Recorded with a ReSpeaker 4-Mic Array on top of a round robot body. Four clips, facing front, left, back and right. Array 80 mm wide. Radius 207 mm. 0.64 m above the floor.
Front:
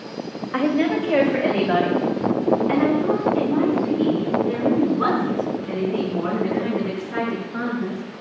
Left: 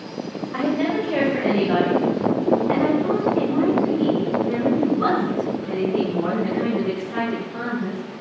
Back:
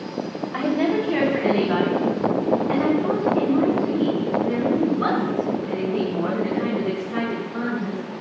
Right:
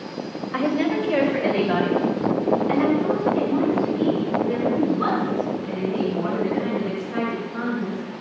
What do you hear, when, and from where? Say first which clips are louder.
0.5 s a woman speaking: even, front 1 dB; 20° right, 4 m; by 8.0 s 10° right, 14.5 m